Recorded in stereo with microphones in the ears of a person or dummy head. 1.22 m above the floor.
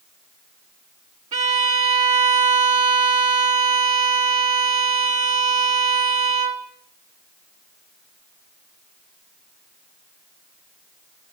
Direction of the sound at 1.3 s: 40° right (ahead or behind).